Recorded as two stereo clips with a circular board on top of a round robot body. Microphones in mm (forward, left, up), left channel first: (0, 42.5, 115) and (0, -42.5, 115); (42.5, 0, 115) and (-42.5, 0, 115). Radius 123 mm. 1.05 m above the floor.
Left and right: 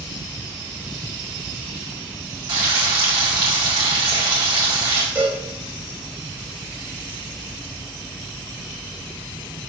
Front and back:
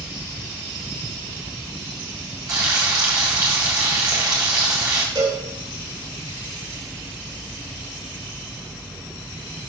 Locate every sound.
2.5 s frying: 130° right, 1.7 m
5.2 s a cowbell: 160° right, 4 m